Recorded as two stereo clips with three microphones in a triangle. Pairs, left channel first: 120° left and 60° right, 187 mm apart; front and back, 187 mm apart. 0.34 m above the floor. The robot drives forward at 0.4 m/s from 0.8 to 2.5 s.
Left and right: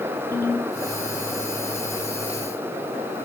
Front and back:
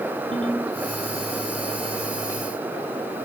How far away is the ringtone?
About 1.2 m.